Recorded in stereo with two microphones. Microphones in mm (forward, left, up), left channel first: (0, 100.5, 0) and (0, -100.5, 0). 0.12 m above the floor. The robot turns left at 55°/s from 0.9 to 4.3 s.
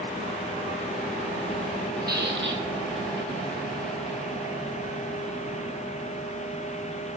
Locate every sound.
2.1 s a squeak: 55° right, 3 m; by 2.6 s 85° right, 3 m